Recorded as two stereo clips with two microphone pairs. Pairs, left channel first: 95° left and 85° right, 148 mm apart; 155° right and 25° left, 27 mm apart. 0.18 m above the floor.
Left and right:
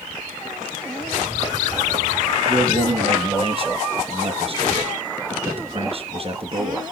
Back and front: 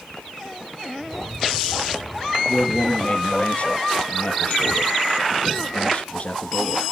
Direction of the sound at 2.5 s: 130° right.